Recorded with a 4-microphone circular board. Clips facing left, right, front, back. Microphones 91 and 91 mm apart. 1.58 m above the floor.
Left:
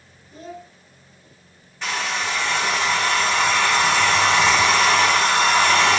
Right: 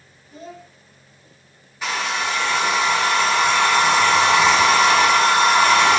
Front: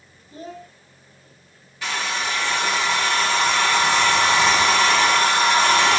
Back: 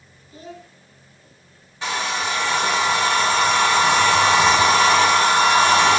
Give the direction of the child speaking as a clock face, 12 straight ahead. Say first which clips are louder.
Left 1 dB, front 3 dB; 12 o'clock.